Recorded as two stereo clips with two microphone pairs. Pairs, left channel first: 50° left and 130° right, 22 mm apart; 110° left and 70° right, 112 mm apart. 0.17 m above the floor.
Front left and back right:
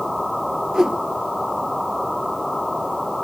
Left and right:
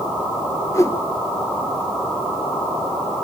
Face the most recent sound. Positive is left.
turn(degrees=170)